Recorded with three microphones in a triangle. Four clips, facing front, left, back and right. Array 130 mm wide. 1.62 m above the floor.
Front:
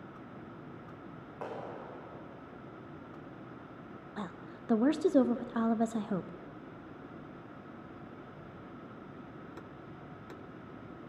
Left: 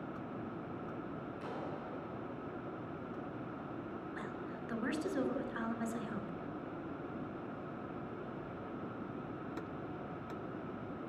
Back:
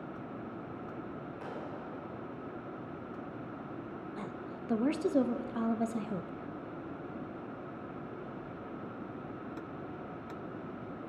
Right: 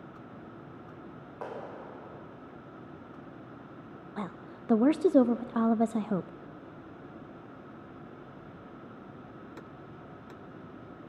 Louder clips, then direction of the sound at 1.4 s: Right 6 dB, front 4 dB; 60° right.